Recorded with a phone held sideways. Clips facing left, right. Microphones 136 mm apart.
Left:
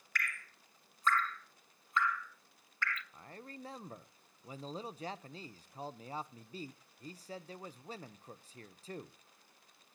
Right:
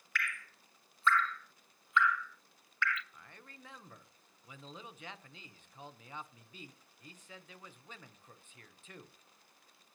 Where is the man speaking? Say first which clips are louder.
Left 7 dB; 35° left (ahead or behind), 0.7 m.